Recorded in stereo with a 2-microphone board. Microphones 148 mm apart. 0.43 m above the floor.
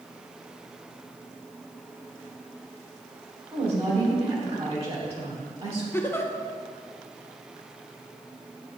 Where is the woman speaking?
45° right (ahead or behind), 2 m.